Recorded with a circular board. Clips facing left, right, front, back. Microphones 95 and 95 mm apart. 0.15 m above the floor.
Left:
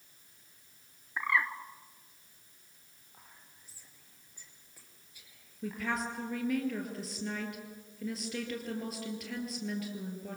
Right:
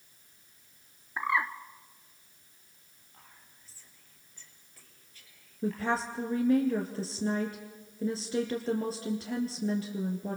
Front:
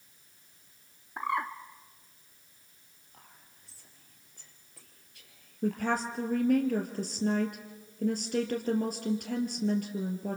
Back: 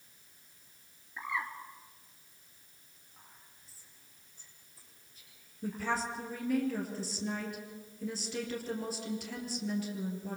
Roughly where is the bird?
Ahead.